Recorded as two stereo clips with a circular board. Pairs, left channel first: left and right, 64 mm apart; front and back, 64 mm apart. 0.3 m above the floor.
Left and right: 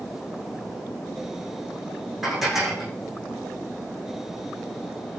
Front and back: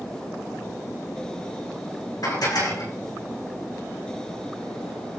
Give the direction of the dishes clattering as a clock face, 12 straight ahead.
12 o'clock.